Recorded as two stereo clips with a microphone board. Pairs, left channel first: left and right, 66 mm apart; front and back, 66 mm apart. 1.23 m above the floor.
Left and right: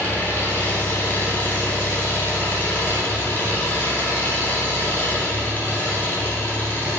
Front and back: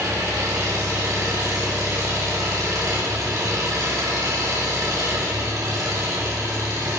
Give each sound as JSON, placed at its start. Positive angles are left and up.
{"t": 0.0, "sound": "an engine running", "azimuth_deg": 150, "distance_m": 4.5}